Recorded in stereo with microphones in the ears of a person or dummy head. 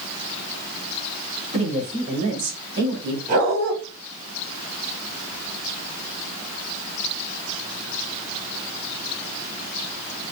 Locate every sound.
1.5 s a man speaking: 35° right (ahead or behind), 3.5 m; by 3.2 s 60° right (ahead or behind), 2.5 m
3.3 s a dog barking: 45° right (ahead or behind), 3.5 m